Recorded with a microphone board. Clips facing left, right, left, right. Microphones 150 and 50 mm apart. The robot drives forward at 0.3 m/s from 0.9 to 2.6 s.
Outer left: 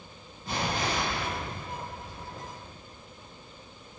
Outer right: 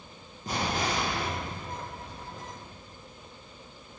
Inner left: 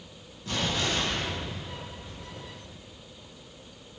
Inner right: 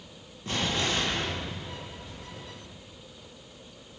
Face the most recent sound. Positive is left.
turn(degrees=-45)  # may be behind; listen again after turning